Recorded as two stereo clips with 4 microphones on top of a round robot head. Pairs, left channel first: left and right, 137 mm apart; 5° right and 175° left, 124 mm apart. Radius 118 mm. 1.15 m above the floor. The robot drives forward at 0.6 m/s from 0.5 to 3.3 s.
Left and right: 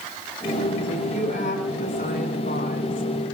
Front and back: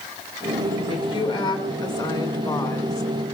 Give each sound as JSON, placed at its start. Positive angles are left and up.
{"t": 0.9, "sound": "a woman speaking", "azimuth_deg": 45, "distance_m": 3.0}